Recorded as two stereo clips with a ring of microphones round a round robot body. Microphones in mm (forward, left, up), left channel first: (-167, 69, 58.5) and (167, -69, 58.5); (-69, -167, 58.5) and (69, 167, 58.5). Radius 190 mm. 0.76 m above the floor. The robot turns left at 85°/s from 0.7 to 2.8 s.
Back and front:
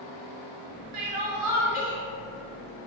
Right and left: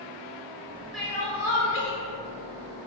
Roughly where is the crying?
Ahead.